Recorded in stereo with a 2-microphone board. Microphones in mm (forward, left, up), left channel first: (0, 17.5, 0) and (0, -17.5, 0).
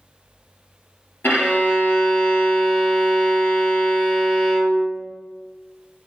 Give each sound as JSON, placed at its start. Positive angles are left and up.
{"t": 1.2, "sound": "a violin", "side_deg": 85, "distance_m": 1.5}